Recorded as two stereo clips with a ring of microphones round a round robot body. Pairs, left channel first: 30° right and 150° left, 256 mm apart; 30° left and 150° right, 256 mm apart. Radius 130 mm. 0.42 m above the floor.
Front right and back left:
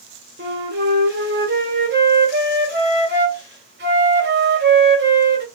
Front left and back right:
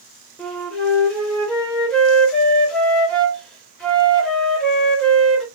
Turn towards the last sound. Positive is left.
turn(degrees=115)